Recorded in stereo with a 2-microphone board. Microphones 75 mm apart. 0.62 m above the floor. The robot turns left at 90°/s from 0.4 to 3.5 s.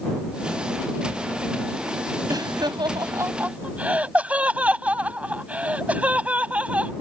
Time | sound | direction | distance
2.3 | laughter | 50° right (ahead or behind) | ?